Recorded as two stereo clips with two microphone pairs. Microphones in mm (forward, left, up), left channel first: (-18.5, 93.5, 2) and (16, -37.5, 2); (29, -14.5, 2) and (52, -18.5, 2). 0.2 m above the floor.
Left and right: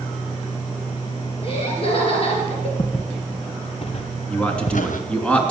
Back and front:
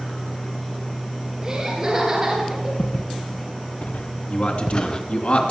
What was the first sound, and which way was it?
Laughter, 60° left.